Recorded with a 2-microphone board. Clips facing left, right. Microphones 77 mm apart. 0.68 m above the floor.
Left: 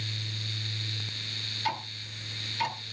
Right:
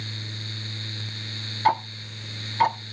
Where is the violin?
No violin in this recording.